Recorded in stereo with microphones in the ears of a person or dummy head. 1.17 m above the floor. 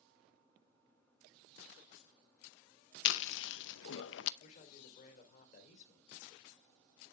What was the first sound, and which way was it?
Chewing, 70° left (ahead or behind).